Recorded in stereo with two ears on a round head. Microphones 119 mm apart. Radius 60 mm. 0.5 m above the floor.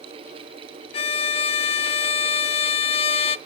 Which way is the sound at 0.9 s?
45° left (ahead or behind).